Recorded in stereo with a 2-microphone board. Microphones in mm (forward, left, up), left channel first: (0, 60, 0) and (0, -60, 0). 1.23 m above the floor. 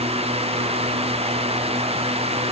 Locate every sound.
Only background noise.